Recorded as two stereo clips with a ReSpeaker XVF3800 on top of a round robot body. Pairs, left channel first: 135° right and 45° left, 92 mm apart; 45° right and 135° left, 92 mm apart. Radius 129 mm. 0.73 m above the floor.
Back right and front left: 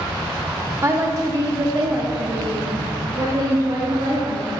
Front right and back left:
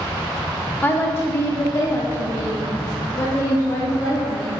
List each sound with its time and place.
0.8 s a woman speaking: 10° left, 0.9 m; by 4.6 s 5° left, 3.5 m